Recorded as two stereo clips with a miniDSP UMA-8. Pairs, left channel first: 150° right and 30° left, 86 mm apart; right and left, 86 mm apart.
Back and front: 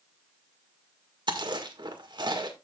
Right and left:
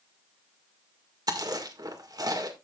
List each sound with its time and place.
1.3 s chewing: 55° left, 1.7 m